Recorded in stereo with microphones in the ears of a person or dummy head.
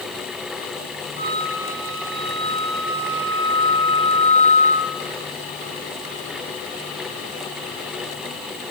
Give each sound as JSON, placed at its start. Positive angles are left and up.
{"t": 1.2, "sound": "a flute", "side_deg": 40, "distance_m": 2.5}